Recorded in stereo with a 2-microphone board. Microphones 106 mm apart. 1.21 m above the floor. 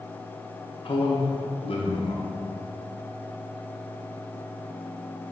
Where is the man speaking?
60° left (ahead or behind), 1.0 m.